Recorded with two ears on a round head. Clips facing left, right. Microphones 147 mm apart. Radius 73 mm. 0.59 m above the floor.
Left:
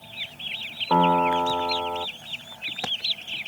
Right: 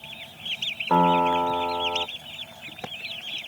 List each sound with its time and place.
0.9 s a piano: centre (ahead or behind)